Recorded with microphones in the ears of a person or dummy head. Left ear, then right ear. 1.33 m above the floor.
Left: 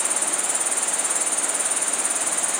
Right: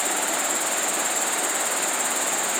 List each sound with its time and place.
0.0 s an insect: 35° left (ahead or behind), 2.5 m